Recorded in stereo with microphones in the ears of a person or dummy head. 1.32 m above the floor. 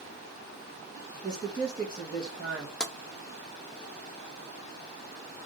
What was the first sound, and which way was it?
A man speaking, 25° right (ahead or behind).